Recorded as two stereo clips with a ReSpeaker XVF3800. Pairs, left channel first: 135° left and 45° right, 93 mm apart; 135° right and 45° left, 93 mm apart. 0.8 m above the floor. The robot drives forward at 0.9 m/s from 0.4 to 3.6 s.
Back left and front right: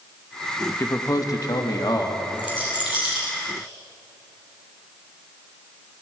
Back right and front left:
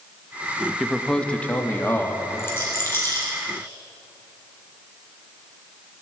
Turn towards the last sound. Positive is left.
turn(degrees=165)